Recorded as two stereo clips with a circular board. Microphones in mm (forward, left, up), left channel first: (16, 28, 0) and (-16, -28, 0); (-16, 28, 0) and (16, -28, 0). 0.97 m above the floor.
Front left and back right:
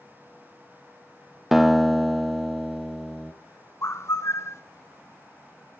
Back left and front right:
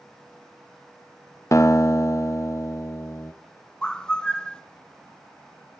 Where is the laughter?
No laughter in this recording.